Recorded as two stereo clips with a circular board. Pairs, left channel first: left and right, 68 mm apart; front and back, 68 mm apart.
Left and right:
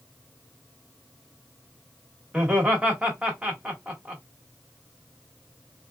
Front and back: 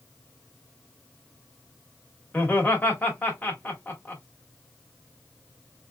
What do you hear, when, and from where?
2.3 s laughter: 30° right, 1.5 m